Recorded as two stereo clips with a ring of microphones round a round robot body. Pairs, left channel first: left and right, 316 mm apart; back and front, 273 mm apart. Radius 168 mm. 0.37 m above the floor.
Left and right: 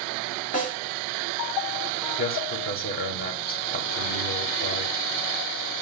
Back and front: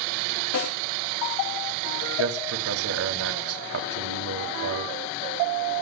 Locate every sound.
0.5 s a snare drum: 155° left, 8 m
2.2 s a man speaking: 30° left, 2 m